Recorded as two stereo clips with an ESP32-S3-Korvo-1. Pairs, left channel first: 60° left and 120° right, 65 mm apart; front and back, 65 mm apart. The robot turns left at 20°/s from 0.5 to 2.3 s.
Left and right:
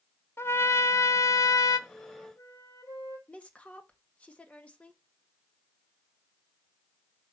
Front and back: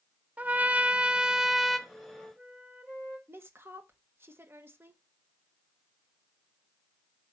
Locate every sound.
0.4 s a trumpet: 115° left, 0.7 m; by 1.8 s 90° left, 0.7 m
1.9 s a flute: 105° left, 2.5 m; by 3.2 s 95° left, 2.5 m
3.3 s a woman speaking: 130° left, 1.3 m